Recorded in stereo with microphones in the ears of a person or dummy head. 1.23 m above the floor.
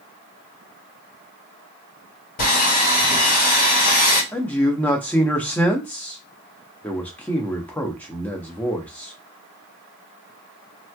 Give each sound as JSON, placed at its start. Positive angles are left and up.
{"t": 2.4, "sound": "sawing", "side_deg": 50, "distance_m": 1.8}
{"t": 4.3, "sound": "a man speaking", "side_deg": 5, "distance_m": 0.6}